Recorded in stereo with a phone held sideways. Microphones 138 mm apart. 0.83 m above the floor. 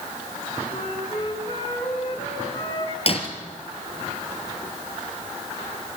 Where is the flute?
50° left (ahead or behind), 5 m.